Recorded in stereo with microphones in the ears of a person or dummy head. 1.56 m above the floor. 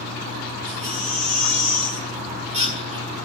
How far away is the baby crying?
About 1.8 m.